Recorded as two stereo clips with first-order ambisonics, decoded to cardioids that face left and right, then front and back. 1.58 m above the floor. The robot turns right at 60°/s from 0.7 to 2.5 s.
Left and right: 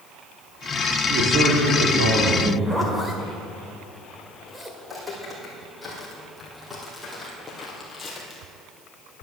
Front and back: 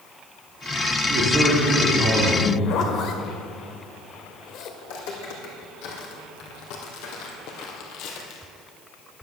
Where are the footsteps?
5° right, 4 m; by 8.5 s 10° left, 2.5 m.